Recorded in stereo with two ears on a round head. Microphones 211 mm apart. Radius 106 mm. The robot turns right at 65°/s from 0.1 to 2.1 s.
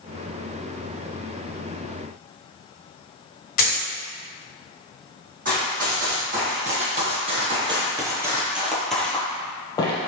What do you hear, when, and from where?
3.6 s a dropped coin: 40° left (ahead or behind), 1.3 m
5.5 s running footsteps: 40° right (ahead or behind), 2.0 m; by 10.1 s 20° left (ahead or behind), 1.3 m